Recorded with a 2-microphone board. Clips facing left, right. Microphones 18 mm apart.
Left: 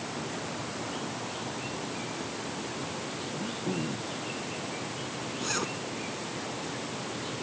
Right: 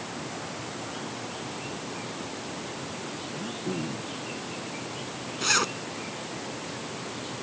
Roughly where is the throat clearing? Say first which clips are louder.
Even; centre.